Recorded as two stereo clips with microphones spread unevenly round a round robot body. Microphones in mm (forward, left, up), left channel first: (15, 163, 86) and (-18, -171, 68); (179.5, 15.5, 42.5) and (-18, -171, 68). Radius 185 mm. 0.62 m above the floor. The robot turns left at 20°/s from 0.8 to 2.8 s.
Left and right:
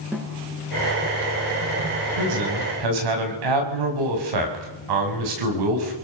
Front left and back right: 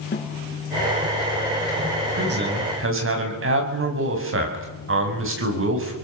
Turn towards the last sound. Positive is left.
turn(degrees=-95)